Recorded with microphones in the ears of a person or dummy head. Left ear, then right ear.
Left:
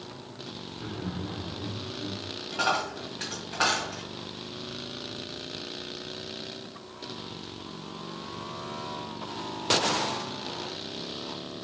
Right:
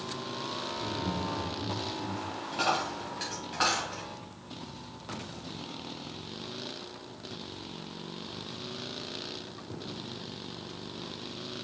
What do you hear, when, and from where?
0.7 s laughter: 55° right (ahead or behind), 2.5 m
2.5 s a dropped coin: centre (ahead or behind), 2 m